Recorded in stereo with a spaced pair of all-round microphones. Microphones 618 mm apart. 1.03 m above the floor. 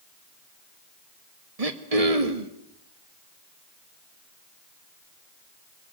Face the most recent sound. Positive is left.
turn(degrees=-70)  # may be behind; listen again after turning